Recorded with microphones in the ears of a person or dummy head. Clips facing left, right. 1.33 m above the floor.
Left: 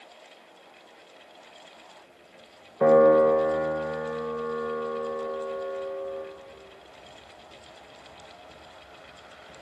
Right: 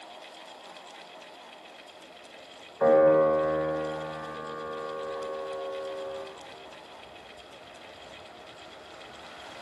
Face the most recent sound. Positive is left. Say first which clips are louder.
# left 3 dB
turn(degrees=40)  # may be behind; listen again after turning